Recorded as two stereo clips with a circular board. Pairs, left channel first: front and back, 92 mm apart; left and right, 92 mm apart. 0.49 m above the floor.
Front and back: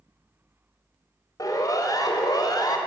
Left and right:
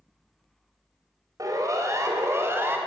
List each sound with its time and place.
1.4 s a siren: 45° right, 3.5 m; by 2.8 s 30° right, 2.5 m